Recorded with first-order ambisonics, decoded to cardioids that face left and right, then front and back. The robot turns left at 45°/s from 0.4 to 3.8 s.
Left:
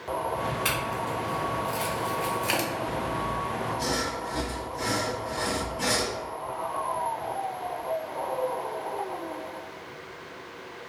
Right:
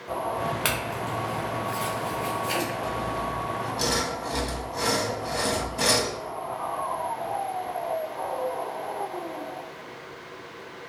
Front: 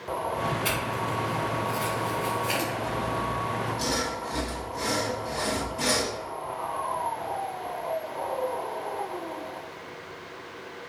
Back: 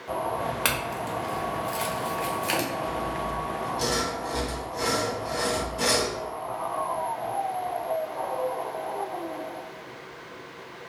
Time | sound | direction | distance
0.7 | a clink | 145° right | 0.9 m
2.8 | sawing | 55° right | 0.8 m